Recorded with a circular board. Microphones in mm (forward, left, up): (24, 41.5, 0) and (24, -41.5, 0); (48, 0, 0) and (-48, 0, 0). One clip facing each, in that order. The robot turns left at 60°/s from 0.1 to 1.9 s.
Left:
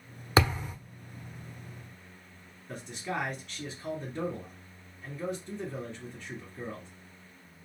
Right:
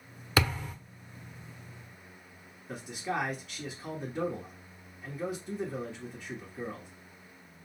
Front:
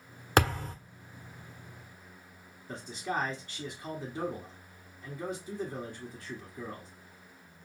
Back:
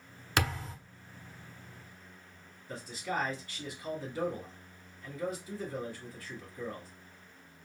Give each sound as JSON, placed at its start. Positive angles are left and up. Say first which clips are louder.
{"t": 0.4, "sound": "a thud", "louder": "left 3 dB, front 6 dB", "azimuth_deg": 35, "distance_m": 1.0}
{"t": 2.7, "sound": "a man speaking", "louder": "right 1 dB, front 2 dB", "azimuth_deg": -15, "distance_m": 1.1}